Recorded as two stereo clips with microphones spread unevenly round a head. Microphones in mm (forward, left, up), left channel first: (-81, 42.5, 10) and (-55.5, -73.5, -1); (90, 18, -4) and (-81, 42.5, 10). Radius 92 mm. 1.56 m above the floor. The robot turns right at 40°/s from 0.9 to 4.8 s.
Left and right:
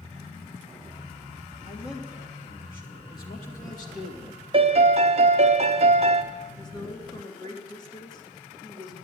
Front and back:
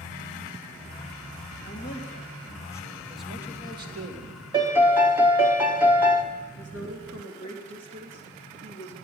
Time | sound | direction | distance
1.6 | a man speaking | 20° left | 3 m
4.5 | a piano | 120° right | 0.9 m
6.6 | a woman speaking | 160° left | 3 m